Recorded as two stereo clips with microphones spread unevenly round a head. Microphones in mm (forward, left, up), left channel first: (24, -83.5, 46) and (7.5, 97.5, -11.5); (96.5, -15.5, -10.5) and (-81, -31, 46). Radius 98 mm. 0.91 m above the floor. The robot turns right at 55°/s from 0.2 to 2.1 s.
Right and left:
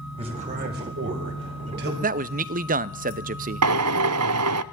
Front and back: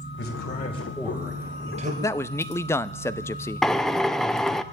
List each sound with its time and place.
0.2 s a man speaking: 35° left, 4.5 m; by 1.9 s 130° left, 4.5 m
2.0 s a man speaking: 70° left, 0.6 m
3.6 s a drill: 100° left, 0.5 m